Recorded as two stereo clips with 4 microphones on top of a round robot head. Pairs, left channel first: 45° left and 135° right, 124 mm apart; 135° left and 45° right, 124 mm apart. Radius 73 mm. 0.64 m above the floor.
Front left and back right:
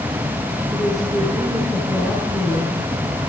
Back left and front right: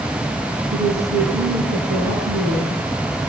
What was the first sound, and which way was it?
A woman speaking, 45° right.